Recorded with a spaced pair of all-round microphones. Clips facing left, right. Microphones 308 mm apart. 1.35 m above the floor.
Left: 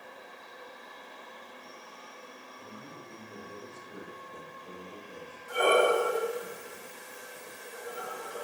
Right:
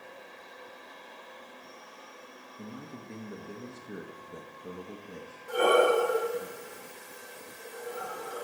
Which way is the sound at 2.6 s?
75° right (ahead or behind).